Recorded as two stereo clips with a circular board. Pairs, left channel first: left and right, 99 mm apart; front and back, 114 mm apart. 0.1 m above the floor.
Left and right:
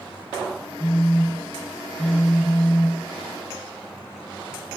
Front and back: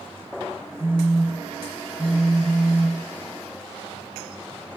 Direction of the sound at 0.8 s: 75° left.